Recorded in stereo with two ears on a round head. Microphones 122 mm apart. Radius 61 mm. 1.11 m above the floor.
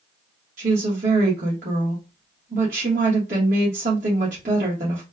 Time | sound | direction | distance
0.6 | a woman speaking | 65° right (ahead or behind) | 1.4 m